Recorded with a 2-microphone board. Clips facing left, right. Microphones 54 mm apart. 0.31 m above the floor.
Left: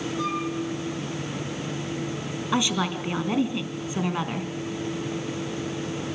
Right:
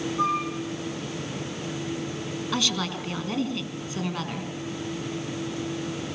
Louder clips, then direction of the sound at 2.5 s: Left 4 dB; 20° left (ahead or behind).